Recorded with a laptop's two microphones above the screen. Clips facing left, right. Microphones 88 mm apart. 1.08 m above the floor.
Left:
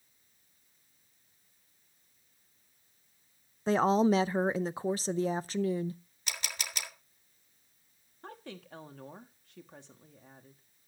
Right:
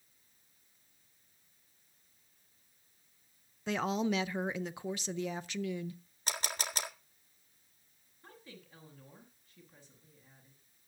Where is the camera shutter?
40° right (ahead or behind), 1.8 m.